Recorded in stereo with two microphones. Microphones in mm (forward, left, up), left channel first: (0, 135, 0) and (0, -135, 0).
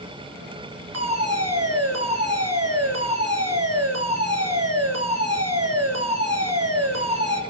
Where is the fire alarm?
60° right (ahead or behind), 4 m.